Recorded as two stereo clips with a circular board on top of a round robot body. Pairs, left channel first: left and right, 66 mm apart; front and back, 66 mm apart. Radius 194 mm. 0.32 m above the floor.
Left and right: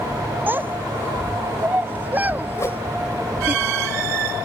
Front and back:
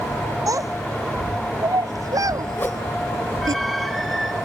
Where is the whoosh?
55° left.